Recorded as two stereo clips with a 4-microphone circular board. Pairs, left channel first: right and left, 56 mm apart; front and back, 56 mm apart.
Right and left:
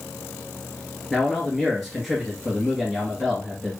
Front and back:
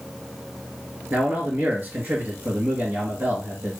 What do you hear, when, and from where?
1.1 s a man speaking: straight behind, 1.7 m